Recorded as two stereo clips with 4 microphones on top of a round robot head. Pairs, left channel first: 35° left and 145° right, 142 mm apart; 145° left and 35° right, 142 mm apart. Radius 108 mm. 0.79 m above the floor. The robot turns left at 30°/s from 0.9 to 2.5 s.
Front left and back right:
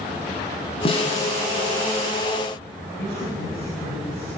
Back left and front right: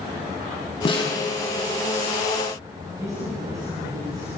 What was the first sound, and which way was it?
A snare drum, 90° left.